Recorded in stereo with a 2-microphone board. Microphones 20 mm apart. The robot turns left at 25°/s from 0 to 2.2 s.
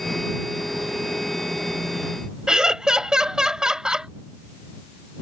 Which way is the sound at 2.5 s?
35° right (ahead or behind).